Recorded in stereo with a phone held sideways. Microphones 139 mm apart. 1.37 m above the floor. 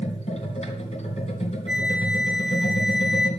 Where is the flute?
10° right (ahead or behind), 1.8 m.